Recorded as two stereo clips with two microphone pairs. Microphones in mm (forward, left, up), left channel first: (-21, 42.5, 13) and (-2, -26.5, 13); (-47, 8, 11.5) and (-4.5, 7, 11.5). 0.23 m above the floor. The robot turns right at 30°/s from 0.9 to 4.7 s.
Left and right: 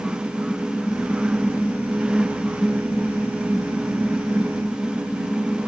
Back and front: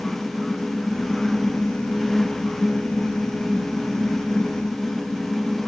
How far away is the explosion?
I don't hear an explosion.